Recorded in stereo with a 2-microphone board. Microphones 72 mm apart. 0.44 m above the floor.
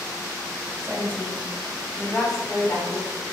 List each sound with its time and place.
0.8 s a woman speaking: 35° right (ahead or behind), 1.6 m; by 3.1 s 25° left (ahead or behind), 1.5 m